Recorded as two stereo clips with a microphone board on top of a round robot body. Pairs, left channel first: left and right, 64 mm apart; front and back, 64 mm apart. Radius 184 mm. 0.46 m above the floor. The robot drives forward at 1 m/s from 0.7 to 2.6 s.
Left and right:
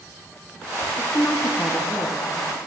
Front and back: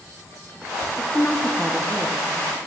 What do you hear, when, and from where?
1.0 s a woman speaking: 35° left, 0.9 m; by 2.6 s 165° left, 1.4 m